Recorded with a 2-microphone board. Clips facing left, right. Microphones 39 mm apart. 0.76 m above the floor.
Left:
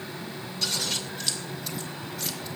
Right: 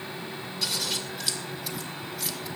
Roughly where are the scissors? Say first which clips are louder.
Left 1 dB; centre.